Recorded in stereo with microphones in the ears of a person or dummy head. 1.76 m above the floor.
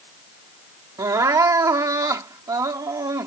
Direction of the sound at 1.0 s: 25° right (ahead or behind).